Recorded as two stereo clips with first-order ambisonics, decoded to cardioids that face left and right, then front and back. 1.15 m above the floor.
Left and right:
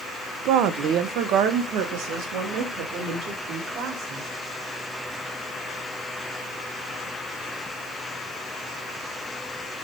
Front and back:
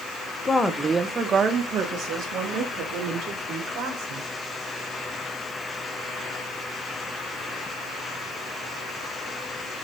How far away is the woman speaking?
About 0.8 m.